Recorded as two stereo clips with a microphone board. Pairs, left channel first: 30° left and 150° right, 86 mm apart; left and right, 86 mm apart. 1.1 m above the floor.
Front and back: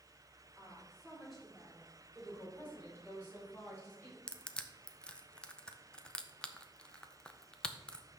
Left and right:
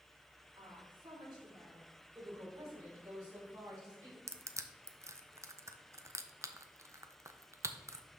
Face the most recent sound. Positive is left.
turn(degrees=-45)